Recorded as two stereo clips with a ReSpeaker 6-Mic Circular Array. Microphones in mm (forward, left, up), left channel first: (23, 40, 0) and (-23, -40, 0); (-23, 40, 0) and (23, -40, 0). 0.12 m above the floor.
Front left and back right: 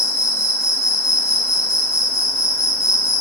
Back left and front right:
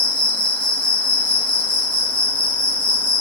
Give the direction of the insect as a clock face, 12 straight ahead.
10 o'clock.